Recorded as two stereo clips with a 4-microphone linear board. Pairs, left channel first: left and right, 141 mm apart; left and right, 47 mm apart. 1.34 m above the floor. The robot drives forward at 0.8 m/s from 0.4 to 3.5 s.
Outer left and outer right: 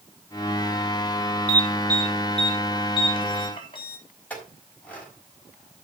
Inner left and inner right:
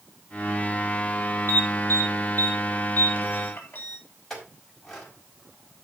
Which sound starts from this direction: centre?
A clink, at 4.3 s.